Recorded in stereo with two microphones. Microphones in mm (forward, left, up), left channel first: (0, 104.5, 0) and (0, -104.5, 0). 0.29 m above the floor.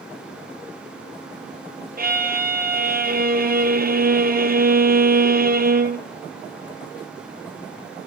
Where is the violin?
50° right (ahead or behind), 1.4 m.